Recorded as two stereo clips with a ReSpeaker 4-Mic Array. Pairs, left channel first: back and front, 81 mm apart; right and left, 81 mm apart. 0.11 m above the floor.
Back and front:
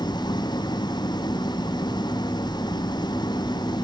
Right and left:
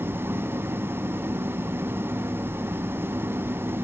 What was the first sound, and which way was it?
An engine running, 155° left.